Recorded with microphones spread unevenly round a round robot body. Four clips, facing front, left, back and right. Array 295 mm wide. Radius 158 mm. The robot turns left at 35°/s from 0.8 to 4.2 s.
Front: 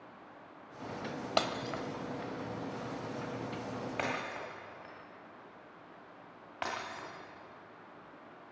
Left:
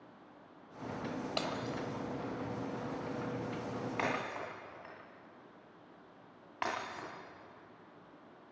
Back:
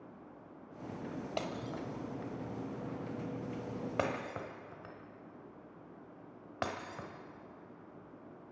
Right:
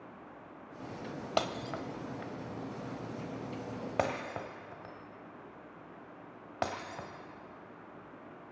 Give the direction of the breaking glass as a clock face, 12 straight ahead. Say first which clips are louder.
Right 7 dB, front 7 dB; 1 o'clock.